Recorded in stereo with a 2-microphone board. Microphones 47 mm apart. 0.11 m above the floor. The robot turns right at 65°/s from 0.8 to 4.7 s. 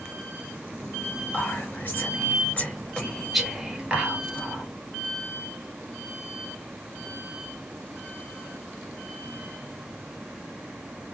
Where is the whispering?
30° left (ahead or behind), 1.8 m; by 4.6 s 40° right (ahead or behind), 1.8 m.